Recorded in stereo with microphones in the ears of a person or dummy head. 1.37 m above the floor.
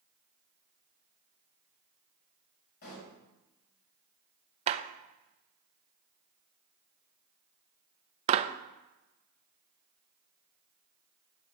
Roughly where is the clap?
Right.